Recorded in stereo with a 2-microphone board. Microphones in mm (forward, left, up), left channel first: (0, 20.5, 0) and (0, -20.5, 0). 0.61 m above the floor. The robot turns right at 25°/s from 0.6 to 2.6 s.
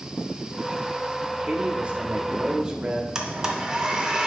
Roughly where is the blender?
Centre.